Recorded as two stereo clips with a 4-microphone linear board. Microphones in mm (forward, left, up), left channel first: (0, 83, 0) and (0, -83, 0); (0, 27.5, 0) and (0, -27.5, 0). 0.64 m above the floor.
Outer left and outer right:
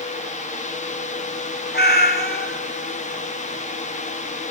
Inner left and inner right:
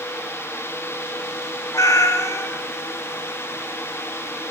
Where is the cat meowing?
75° left (ahead or behind), 0.7 m.